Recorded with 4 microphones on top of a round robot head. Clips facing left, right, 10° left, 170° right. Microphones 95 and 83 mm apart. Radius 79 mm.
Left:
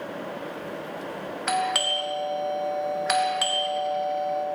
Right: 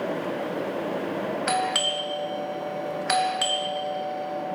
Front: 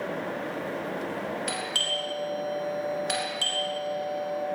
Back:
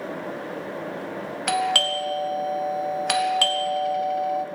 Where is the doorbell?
Straight behind, 2.5 m.